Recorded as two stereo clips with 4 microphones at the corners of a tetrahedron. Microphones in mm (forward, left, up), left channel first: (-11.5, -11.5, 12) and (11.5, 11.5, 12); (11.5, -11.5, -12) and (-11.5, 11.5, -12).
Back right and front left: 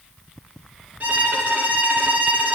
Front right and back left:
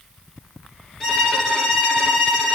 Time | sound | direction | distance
1.0 | a violin | 30° left | 3 m